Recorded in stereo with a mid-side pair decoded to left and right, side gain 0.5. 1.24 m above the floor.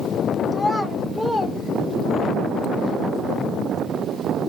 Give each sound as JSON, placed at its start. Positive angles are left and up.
{"t": 0.5, "sound": "a child speaking", "azimuth_deg": 20, "distance_m": 3.5}